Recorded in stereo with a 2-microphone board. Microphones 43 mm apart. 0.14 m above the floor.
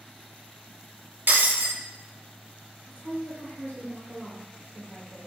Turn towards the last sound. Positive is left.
turn(degrees=45)  # may be behind; listen again after turning